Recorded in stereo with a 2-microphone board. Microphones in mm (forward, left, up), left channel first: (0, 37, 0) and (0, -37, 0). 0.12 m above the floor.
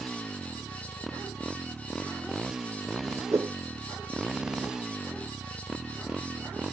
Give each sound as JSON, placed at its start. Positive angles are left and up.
{"t": 0.0, "sound": "a motorcycle", "side_deg": 0}
{"t": 3.3, "sound": "a whoosh", "side_deg": -40}